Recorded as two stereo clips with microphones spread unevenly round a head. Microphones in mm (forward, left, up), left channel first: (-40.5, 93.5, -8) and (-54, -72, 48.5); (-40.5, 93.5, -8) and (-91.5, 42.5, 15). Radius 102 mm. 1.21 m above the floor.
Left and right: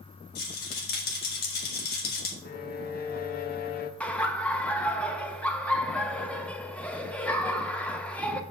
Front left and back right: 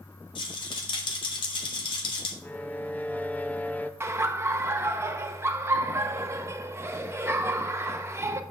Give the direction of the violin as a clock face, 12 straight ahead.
8 o'clock.